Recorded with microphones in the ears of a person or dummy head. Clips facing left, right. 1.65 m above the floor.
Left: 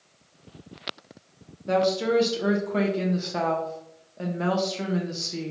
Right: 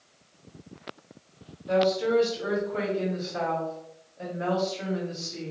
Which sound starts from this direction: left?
A woman speaking, at 1.7 s.